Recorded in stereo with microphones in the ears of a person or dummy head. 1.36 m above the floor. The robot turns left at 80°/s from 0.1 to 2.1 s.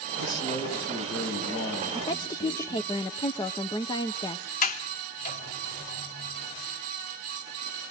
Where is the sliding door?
40° left (ahead or behind), 3 m.